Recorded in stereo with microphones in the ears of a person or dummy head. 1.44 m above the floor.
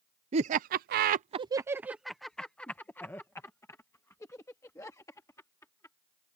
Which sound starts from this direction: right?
Laughter, at 0.3 s.